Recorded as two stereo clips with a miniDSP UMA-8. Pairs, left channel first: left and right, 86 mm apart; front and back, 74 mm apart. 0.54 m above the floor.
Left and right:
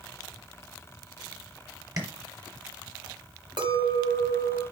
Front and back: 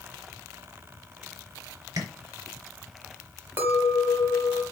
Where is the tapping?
140° right, 4 m.